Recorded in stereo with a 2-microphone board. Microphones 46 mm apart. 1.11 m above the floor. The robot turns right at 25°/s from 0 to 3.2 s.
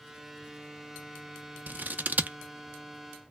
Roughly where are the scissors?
Right.